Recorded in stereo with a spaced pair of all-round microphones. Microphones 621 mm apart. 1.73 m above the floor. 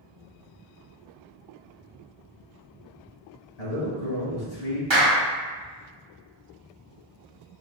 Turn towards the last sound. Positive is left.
turn(degrees=-50)  # may be behind; listen again after turning